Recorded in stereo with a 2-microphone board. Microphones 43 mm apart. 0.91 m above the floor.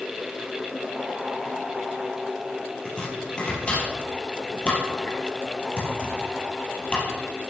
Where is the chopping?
25° left (ahead or behind), 5 m.